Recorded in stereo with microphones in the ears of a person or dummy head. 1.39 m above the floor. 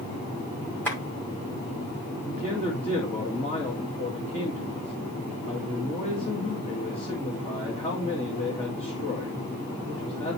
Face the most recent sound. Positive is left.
turn(degrees=30)  # may be behind; listen again after turning